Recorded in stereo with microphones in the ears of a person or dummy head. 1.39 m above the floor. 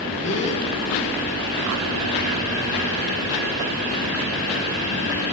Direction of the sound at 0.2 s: 30° left (ahead or behind).